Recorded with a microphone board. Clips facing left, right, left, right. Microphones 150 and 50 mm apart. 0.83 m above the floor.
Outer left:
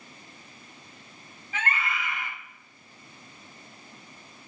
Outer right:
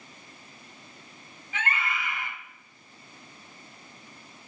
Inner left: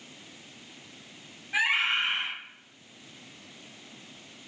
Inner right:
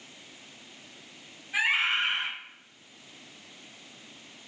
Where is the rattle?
No rattle in this recording.